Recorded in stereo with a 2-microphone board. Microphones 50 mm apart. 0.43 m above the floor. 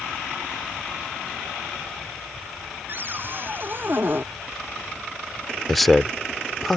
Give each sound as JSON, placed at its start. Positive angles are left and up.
{"t": 2.9, "sound": "a cupboard door", "side_deg": -45}
{"t": 5.7, "sound": "a man speaking", "side_deg": 5}